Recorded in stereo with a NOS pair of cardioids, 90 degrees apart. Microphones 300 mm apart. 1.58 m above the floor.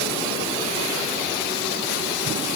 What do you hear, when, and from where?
Only background noise.